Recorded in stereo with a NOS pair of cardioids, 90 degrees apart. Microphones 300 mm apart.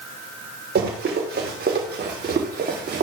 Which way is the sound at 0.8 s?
35° right.